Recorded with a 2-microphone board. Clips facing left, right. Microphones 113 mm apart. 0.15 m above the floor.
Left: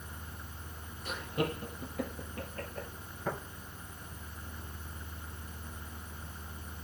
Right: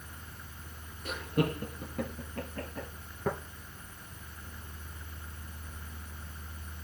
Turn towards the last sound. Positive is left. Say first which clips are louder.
# right 3 dB
turn(degrees=-50)  # may be behind; listen again after turning